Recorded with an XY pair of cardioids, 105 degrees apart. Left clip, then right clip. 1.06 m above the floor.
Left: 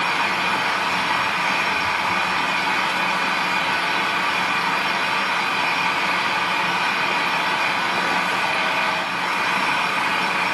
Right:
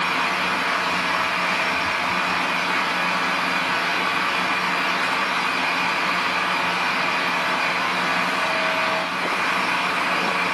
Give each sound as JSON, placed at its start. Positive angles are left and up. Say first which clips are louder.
{"t": 0.0, "sound": "a fan", "louder": "left 1 dB", "azimuth_deg": 65, "distance_m": 1.9}